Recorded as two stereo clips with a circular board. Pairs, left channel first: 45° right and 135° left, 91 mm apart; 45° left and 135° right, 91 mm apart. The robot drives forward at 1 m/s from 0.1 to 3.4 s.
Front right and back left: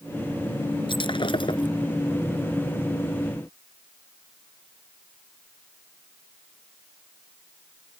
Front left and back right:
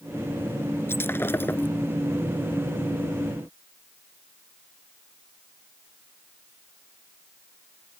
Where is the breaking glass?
20° right.